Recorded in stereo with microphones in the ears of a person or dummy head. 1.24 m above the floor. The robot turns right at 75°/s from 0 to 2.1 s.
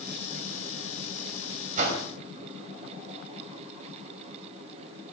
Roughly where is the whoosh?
Right.